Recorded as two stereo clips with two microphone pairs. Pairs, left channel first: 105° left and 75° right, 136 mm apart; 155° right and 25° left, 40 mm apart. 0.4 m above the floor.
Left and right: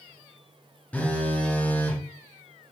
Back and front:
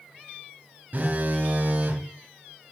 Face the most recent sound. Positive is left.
turn(degrees=30)